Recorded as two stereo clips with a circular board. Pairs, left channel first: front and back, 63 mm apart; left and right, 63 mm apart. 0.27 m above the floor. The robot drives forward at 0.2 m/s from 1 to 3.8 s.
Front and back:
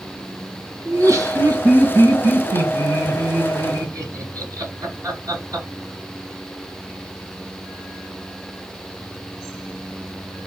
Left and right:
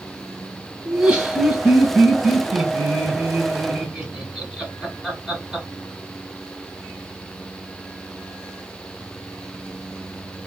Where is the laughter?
160° right, 1.8 m; by 5.7 s 165° right, 2.5 m.